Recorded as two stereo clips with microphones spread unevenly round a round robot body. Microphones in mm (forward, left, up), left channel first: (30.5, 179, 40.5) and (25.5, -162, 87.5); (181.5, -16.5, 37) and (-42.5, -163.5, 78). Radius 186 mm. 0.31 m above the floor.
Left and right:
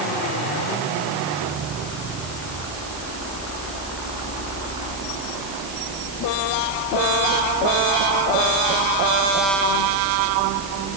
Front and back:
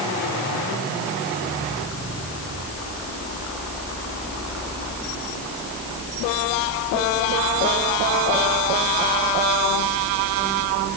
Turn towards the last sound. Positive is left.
No sound to turn to.